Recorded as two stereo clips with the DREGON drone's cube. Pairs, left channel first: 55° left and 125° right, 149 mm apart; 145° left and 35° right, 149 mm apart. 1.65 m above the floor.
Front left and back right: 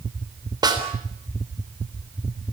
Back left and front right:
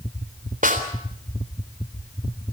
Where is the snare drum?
60° right, 3.5 m.